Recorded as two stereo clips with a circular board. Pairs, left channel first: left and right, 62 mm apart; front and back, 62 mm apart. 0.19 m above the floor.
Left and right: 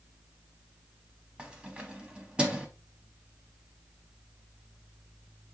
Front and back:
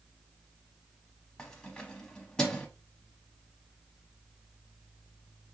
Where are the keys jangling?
55° right, 1.0 m.